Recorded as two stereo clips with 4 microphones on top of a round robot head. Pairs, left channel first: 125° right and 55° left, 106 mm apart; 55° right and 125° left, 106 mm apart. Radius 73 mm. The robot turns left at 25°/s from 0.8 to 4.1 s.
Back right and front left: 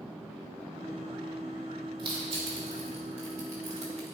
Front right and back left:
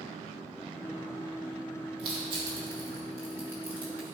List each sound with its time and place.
2.0 s crushing: 95° left, 2.5 m; by 4.1 s 45° left, 2.5 m